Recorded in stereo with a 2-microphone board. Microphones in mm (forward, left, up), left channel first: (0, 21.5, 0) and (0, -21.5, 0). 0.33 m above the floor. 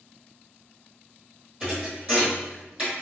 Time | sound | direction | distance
1.6 | a thud | 25° right (ahead or behind) | 1.9 m